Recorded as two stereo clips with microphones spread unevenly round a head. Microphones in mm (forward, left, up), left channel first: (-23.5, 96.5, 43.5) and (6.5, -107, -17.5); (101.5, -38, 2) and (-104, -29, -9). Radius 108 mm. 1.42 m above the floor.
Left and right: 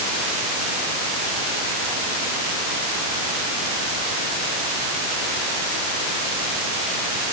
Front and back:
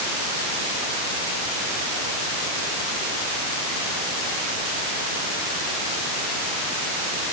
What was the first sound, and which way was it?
Only background noise.